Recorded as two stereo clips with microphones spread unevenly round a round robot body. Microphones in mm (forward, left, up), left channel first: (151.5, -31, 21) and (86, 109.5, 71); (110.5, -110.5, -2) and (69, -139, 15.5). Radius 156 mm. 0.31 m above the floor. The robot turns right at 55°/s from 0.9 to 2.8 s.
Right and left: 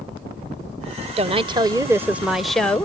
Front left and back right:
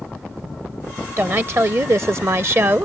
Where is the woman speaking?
165° left; by 2.9 s 105° right.